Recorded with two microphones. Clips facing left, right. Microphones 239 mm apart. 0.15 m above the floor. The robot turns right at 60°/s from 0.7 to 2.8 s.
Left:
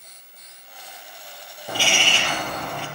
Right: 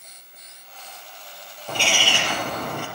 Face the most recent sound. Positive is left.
turn(degrees=-125)